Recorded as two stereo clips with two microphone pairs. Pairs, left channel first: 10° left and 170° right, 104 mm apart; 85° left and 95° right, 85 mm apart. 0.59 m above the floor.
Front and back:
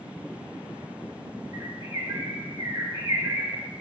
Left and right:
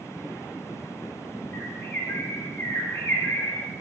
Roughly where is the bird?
Behind left.